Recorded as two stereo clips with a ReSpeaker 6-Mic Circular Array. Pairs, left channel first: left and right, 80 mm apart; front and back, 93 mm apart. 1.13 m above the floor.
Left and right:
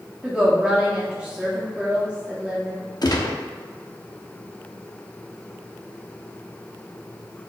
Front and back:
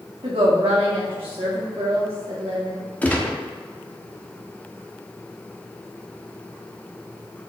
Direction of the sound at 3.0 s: 70° left.